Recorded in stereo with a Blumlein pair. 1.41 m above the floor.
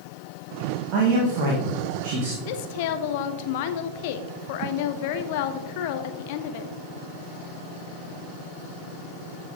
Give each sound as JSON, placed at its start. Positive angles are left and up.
{"t": 0.9, "sound": "a man speaking", "azimuth_deg": -40, "distance_m": 1.9}
{"t": 2.5, "sound": "a woman speaking", "azimuth_deg": 50, "distance_m": 0.9}